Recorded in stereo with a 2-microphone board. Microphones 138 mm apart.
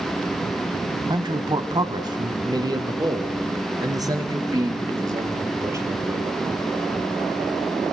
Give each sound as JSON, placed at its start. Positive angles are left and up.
{"t": 1.1, "sound": "a man speaking", "side_deg": -30, "distance_m": 1.2}